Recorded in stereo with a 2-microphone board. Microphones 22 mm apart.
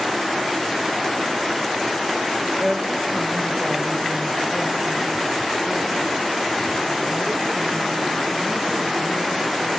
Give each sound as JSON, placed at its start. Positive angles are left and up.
{"t": 2.6, "sound": "a woman speaking", "side_deg": -15, "distance_m": 1.5}